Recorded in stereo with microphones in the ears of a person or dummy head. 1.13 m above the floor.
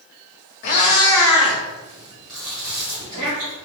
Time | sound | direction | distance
0.6 | a cat meowing | 35° left (ahead or behind) | 0.7 m
2.3 | chewing | 10° right (ahead or behind) | 1.9 m